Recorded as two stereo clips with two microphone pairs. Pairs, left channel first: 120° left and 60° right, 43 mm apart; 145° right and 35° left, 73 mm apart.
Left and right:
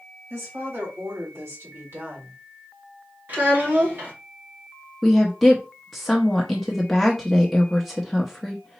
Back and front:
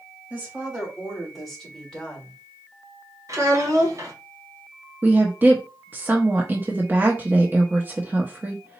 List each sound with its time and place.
0.3 s a woman speaking: 40° right, 3.5 m; by 2.4 s 85° right, 2.5 m
3.3 s a child speaking: 10° right, 2 m
5.0 s a woman speaking: 40° left, 0.7 m